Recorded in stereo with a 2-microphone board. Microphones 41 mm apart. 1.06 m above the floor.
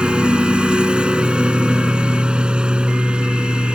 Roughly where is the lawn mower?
Right.